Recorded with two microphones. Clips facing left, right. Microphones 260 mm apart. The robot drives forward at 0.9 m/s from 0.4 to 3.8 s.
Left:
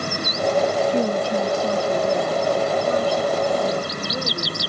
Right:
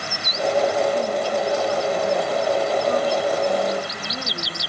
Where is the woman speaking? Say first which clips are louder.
Left 2 dB; 85° left, 1.2 m; by 4.6 s 25° left (ahead or behind), 3 m.